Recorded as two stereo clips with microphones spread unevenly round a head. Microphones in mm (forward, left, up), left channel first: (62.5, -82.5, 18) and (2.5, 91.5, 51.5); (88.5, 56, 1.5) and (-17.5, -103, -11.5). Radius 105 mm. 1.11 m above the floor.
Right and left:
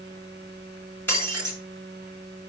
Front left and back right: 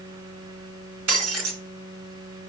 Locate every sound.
1.1 s breaking glass: 150° right, 6.5 m